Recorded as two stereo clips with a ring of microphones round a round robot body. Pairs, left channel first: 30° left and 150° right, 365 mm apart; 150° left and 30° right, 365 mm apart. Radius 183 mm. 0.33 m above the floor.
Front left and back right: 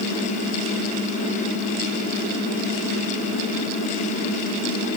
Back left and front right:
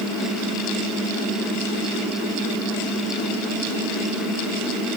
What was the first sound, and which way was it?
Only background noise.